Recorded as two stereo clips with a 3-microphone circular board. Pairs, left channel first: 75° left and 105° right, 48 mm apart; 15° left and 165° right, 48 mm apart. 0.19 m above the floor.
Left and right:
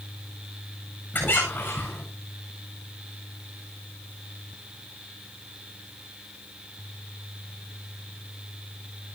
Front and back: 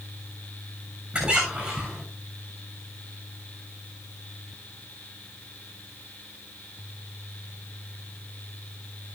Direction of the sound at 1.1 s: 120° left.